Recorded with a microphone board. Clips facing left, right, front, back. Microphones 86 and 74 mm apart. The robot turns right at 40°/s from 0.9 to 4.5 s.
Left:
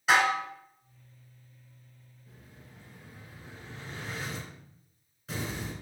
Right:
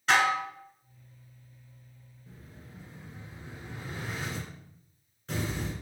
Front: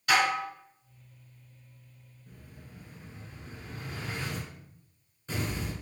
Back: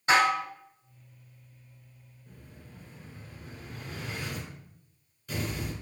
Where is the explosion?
85° right, 1.5 m; by 5.7 s 5° left, 1.5 m.